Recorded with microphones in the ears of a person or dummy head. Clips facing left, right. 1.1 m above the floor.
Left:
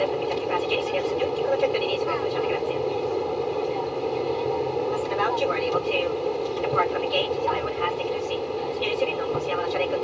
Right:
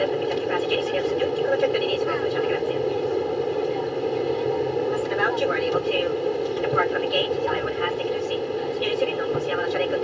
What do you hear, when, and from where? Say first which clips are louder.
0.0 s an aircraft: right 2 dB; 10° right (ahead or behind)